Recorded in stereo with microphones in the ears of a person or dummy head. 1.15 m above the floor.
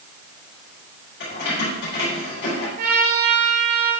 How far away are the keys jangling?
About 3 m.